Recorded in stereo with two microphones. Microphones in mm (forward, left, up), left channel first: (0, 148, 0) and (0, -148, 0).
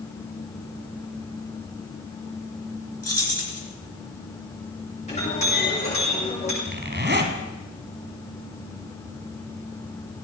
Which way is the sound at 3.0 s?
55° left (ahead or behind).